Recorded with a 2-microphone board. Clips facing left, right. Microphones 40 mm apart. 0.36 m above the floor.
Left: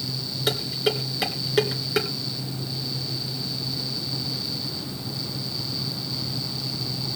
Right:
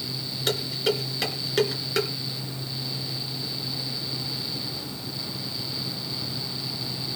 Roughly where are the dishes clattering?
Centre.